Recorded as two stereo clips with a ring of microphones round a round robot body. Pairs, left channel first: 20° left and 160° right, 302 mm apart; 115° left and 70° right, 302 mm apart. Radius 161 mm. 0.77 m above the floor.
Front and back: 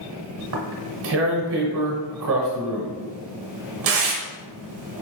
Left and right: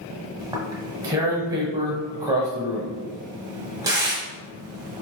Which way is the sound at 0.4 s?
140° right.